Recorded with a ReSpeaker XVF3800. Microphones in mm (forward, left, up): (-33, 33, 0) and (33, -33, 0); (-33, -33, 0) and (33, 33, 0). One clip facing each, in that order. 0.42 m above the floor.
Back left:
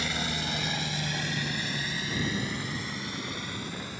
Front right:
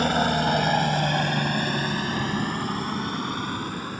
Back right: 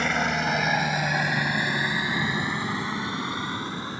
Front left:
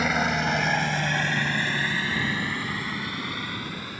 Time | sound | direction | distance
0.0 | a helicopter | 40° right | ?